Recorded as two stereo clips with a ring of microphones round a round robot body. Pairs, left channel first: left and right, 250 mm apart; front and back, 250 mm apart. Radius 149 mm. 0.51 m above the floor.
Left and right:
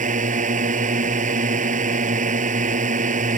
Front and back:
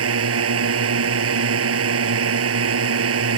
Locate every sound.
0.0 s a drone: 155° right